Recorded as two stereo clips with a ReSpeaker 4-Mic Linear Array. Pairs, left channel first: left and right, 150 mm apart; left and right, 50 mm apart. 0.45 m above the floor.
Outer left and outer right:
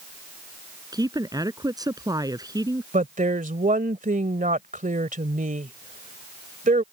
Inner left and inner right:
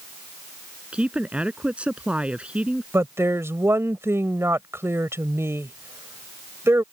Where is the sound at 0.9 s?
25° right (ahead or behind).